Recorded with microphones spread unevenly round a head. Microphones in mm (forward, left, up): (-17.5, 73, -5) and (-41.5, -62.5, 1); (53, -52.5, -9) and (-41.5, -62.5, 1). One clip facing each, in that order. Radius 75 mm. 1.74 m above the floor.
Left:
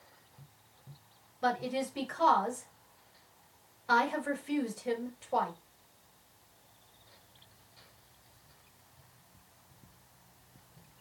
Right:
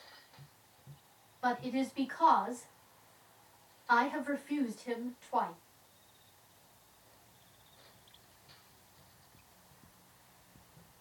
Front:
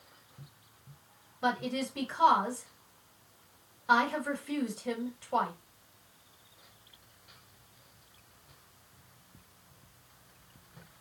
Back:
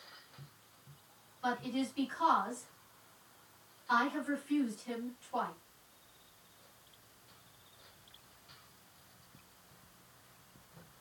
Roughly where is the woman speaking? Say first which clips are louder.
Left 1 dB, front 4 dB; ahead left.